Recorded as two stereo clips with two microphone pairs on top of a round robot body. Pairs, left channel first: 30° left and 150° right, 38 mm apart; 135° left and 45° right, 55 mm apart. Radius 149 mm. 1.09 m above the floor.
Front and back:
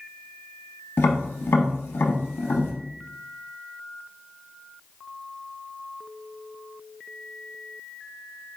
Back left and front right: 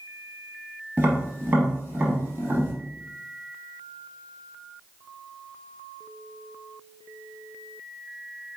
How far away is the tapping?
About 0.7 m.